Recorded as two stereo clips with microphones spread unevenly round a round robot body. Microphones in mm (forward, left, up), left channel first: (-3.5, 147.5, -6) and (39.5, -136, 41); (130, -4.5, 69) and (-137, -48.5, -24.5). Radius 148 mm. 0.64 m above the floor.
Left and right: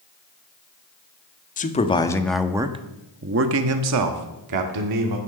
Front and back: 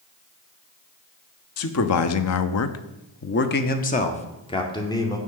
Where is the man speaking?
55° left, 1.3 m; by 5.2 s 75° right, 2 m.